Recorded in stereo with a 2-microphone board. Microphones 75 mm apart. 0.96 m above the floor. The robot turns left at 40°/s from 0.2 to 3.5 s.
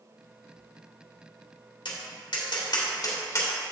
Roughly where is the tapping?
Left.